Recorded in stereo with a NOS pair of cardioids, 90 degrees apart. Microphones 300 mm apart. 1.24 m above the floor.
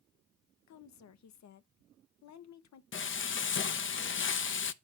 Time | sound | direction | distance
0.7 | a woman speaking | 65° left | 1.1 m
2.9 | frying | 40° left | 0.9 m